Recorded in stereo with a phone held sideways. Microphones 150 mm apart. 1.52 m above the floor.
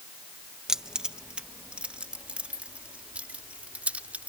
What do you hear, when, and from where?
0.7 s keys jangling: 5° right (ahead or behind); by 4.3 s 10° right (ahead or behind)